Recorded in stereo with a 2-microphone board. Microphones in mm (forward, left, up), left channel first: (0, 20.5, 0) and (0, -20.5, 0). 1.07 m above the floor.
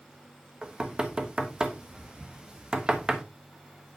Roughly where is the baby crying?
I don't hear a baby crying.